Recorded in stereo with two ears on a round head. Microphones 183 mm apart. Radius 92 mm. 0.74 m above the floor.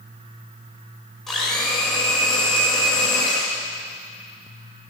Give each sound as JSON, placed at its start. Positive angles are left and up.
{"t": 1.3, "sound": "a blender", "side_deg": 0, "distance_m": 3.5}